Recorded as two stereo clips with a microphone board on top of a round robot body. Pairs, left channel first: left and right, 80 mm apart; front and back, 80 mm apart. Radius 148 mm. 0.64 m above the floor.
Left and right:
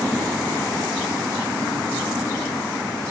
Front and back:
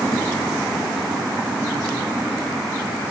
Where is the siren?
No siren in this recording.